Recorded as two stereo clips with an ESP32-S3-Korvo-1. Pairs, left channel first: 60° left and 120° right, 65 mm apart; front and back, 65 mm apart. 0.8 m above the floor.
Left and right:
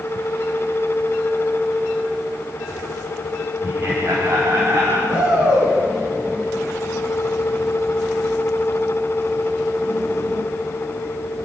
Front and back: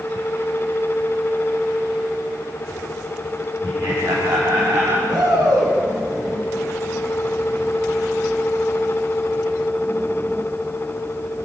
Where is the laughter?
175° right, 4.5 m; by 5.0 s 165° right, 5.5 m.